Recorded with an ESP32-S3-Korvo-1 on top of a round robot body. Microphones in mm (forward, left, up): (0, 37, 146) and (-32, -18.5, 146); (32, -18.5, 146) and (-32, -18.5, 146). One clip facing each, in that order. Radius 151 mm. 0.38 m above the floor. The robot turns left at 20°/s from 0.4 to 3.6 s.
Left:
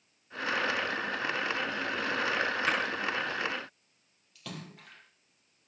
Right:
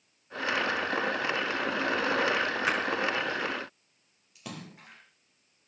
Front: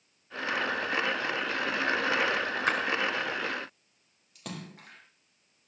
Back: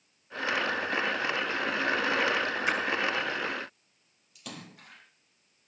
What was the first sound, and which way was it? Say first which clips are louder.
A splash: right 1 dB, front 2 dB; 35° right.